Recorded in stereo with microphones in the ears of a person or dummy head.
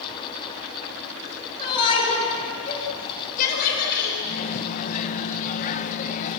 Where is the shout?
30° left (ahead or behind), 5.5 m; by 4.1 s 60° left (ahead or behind), 4.5 m.